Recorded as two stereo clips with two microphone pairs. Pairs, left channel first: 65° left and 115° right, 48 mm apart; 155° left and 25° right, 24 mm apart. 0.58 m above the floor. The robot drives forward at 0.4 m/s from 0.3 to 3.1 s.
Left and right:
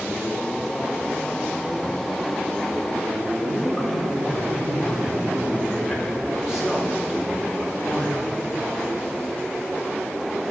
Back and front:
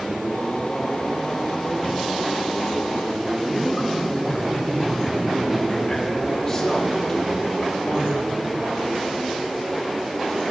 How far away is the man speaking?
About 1.5 m.